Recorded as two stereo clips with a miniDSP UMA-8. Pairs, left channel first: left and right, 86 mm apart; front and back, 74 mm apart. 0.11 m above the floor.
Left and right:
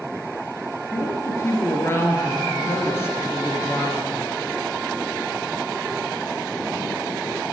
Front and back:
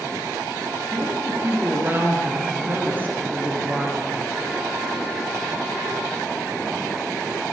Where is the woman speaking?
135° left, 2 m.